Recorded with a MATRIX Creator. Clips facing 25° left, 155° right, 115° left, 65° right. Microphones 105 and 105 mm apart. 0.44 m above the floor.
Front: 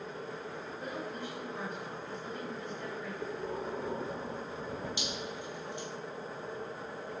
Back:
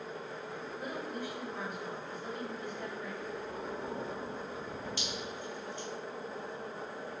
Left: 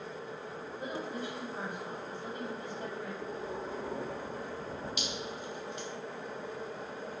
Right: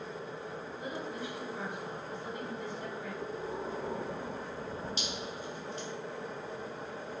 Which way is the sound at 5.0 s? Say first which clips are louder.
Front 1 dB, even; 40° right.